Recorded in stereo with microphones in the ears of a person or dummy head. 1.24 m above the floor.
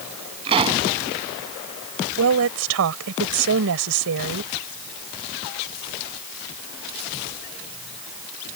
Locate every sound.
0.5 s a pop: 25° right (ahead or behind)
2.2 s a woman speaking: 70° right (ahead or behind)